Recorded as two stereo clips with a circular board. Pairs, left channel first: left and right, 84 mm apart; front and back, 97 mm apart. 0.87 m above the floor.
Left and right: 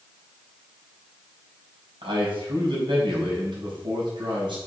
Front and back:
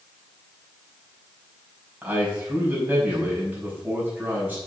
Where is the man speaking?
105° right, 5 m.